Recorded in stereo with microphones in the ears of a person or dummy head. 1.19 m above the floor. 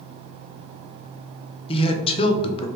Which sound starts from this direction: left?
A man speaking, at 1.7 s.